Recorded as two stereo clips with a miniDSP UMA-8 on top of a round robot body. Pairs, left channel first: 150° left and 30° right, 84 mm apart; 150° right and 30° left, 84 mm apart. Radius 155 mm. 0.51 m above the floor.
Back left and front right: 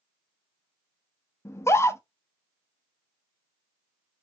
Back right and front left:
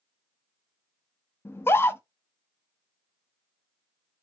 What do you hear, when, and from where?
1.4 s a scream: 175° left, 0.9 m